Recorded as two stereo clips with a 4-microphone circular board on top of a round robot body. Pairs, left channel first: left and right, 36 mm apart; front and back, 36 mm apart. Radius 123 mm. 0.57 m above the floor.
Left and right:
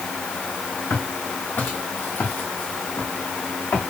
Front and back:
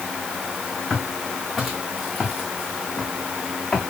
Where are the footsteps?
90° left, 4 m; by 3.8 s 75° left, 5.5 m.